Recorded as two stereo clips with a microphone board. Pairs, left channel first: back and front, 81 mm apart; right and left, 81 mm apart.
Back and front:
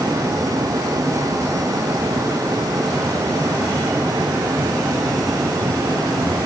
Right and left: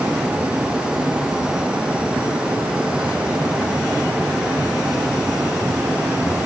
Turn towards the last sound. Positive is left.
No sound to turn to.